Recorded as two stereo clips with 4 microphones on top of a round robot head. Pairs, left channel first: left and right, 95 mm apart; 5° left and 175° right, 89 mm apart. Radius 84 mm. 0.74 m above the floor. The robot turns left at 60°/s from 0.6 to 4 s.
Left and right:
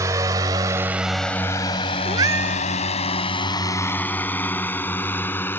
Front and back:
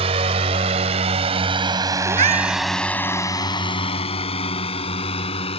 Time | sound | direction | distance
0.0 | a drone | 155° right | ?
2.0 | a cat meowing | 145° right | ?